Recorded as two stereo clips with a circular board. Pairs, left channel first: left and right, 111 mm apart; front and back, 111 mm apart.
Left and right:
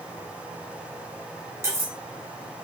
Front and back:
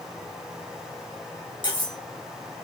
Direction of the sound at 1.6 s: 30° right.